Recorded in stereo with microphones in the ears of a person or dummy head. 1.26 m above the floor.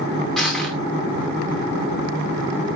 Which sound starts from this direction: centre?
Crushing, at 0.4 s.